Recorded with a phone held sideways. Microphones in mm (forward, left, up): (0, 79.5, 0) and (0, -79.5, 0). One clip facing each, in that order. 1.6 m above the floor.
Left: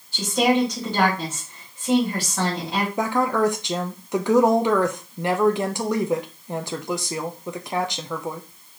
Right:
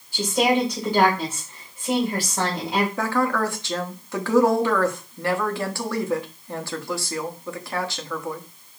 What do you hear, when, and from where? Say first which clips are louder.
0.1 s a woman speaking: left 1 dB; 10° right (ahead or behind), 2 m
3.0 s a woman speaking: left 2 dB; 20° left (ahead or behind), 0.8 m